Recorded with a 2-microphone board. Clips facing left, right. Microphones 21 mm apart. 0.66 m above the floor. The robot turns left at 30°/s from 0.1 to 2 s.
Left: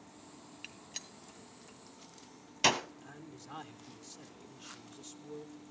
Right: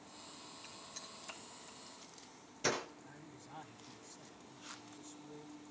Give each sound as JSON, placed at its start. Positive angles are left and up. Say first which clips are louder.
{"t": 0.6, "sound": "a gunshot", "louder": "left 7 dB", "side_deg": 45, "distance_m": 2.0}
{"t": 3.0, "sound": "a man speaking", "louder": "left 4 dB", "side_deg": 55, "distance_m": 1.8}